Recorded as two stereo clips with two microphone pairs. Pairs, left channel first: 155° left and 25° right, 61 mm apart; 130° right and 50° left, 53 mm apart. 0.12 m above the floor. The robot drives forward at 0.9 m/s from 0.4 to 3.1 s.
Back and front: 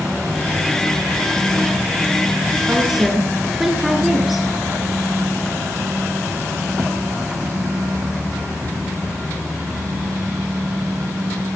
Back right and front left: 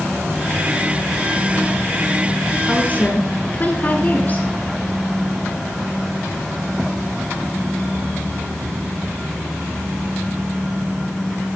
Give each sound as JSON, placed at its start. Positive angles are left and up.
{"t": 2.7, "sound": "a woman speaking", "azimuth_deg": -95, "distance_m": 1.8}